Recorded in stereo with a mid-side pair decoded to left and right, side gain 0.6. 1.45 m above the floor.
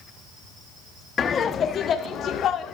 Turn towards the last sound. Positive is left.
turn(degrees=50)